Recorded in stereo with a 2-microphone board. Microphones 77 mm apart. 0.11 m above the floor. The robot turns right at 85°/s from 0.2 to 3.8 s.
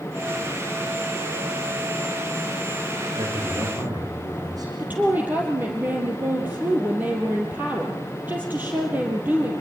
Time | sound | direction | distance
3.1 | a man speaking | 115° right | 8.5 m
4.8 | a woman speaking | 20° right (ahead or behind) | 3.5 m